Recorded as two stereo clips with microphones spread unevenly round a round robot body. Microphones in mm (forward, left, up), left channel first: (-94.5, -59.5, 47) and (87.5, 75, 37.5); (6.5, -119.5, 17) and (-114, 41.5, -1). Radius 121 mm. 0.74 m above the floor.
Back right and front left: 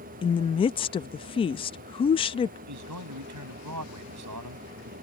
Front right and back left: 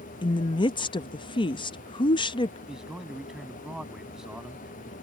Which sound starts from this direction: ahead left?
A man speaking, at 2.7 s.